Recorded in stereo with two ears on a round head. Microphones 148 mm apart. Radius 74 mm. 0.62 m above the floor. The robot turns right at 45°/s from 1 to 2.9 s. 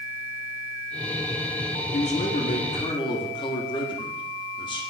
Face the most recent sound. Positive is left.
turn(degrees=135)